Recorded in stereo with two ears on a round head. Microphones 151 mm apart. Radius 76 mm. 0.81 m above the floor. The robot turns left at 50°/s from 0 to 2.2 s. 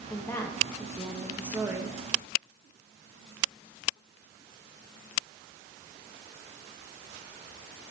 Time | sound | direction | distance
0.1 | a woman speaking | 15° left (ahead or behind) | 1.0 m